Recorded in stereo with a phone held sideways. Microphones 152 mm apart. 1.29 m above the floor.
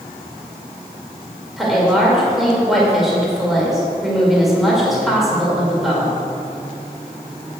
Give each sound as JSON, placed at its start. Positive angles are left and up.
{"t": 1.6, "sound": "a woman speaking", "side_deg": 0, "distance_m": 2.0}